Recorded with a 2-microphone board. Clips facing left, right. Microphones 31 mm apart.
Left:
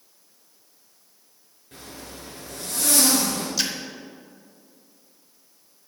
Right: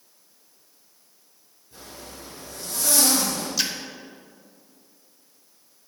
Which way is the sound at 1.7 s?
65° left (ahead or behind).